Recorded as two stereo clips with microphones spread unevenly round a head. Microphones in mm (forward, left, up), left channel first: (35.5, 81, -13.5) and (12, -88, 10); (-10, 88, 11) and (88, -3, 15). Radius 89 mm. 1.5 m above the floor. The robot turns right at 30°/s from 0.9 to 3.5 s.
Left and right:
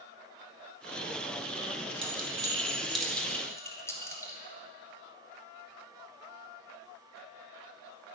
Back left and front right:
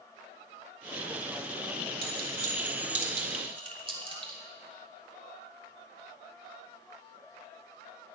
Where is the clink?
40° right, 2.5 m; by 4.4 s 5° left, 2.5 m.